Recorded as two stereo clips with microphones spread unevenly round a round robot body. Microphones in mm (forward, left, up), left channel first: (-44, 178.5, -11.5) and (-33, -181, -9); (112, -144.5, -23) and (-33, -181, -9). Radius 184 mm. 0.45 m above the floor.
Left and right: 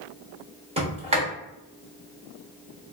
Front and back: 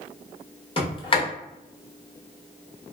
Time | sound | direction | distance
0.8 | a sliding door | 20° right | 1.3 m